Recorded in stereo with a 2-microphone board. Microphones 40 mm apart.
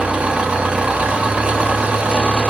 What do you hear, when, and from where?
0.0 s an engine running: 30° right (ahead or behind), 1.2 m